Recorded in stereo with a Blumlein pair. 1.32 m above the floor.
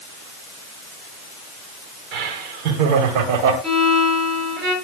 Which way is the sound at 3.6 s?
15° right.